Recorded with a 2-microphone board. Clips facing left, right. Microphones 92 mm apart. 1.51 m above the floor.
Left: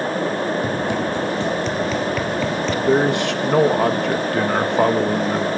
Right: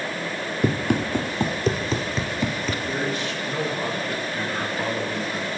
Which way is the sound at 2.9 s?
65° left (ahead or behind).